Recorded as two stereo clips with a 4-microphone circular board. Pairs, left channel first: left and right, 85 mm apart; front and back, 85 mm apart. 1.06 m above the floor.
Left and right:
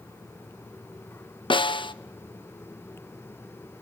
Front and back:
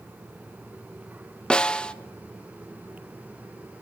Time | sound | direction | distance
1.5 | a snare drum | 80° left | 0.6 m